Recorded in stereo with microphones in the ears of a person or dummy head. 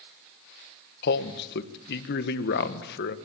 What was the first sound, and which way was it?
A man speaking, 60° left (ahead or behind).